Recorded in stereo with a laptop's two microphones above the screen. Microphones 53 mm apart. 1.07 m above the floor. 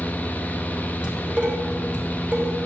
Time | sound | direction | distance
0.0 | a fan | 30° left (ahead or behind) | 0.9 m
1.0 | dishes clattering | 15° right (ahead or behind) | 3.5 m